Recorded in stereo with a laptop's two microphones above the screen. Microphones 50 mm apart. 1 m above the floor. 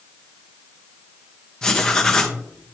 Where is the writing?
15° left (ahead or behind), 1.1 m.